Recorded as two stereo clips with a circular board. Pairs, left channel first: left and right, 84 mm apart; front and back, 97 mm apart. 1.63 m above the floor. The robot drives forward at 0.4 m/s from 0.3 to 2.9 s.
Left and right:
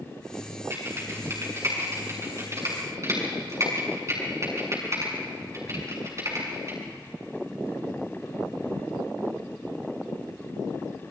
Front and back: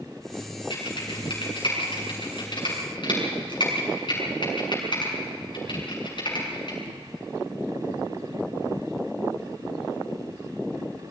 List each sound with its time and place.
0.7 s typing on a keyboard: 35° right, 8 m